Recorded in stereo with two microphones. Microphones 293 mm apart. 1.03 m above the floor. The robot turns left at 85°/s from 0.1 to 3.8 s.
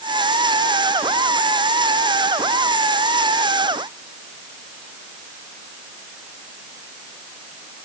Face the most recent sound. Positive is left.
No sound to turn to.